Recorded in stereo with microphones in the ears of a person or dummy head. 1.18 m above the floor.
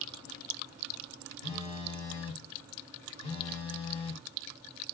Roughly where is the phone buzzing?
Left.